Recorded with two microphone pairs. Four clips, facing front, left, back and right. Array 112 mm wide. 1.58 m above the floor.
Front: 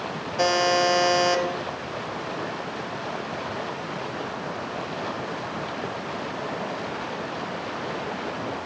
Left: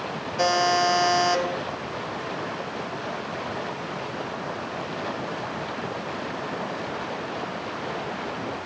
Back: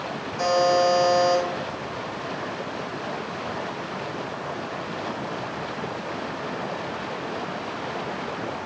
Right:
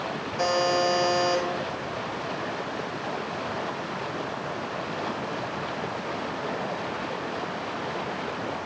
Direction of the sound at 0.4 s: 15° left.